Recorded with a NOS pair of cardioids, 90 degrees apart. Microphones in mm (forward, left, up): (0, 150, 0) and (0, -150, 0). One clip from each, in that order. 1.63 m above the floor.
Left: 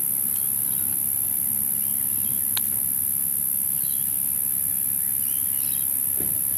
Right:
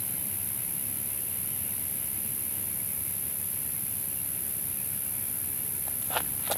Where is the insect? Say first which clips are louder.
Left 6 dB; 55° left.